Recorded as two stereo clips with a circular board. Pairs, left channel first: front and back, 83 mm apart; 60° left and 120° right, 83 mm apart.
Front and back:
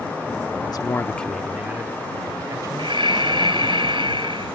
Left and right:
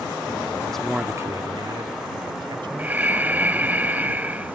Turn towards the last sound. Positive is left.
turn(degrees=170)